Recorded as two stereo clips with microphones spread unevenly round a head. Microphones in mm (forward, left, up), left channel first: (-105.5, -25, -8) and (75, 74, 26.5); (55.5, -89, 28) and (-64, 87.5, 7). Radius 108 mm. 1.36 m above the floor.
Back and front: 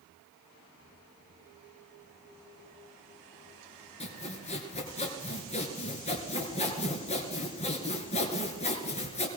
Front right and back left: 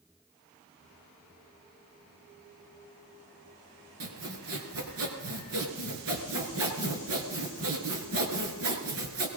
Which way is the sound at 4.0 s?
145° left.